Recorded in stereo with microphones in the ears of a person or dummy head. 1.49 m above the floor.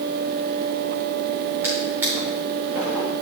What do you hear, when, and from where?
1.6 s a drawer: 15° right (ahead or behind), 3 m